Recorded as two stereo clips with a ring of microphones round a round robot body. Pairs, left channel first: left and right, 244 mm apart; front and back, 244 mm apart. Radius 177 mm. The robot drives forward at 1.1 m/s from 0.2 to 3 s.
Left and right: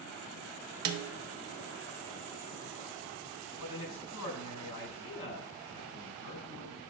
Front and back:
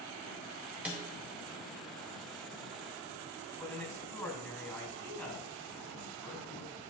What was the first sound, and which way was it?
A snare drum, 95° right.